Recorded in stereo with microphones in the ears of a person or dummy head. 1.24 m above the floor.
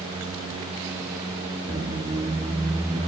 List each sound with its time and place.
1.7 s a squeak: 20° right (ahead or behind), 0.8 m